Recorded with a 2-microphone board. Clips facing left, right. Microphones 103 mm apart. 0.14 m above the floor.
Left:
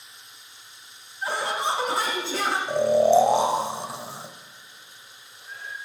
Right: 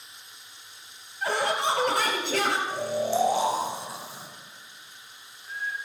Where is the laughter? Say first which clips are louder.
Right 1 dB; 65° right (ahead or behind), 3 m.